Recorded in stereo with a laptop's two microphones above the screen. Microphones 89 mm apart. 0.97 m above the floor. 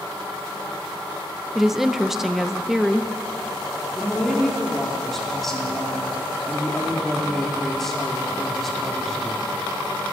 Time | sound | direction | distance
1.6 | a woman speaking | 5° right (ahead or behind) | 0.6 m
3.9 | a woman speaking | 5° left (ahead or behind) | 2.5 m